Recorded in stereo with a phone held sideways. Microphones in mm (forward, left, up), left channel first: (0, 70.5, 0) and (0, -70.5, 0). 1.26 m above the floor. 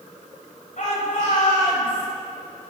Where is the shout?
65° left (ahead or behind), 7 m; by 2.1 s 70° left (ahead or behind), 8 m.